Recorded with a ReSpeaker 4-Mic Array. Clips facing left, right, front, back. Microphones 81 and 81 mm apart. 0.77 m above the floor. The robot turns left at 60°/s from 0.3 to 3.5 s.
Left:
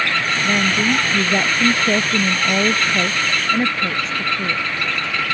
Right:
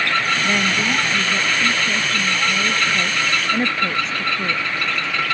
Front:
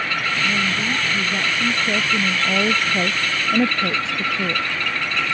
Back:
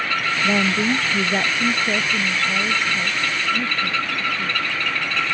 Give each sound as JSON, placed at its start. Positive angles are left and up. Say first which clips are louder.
{"t": 0.4, "sound": "a woman speaking", "louder": "left 2 dB, back 6 dB", "azimuth_deg": -175}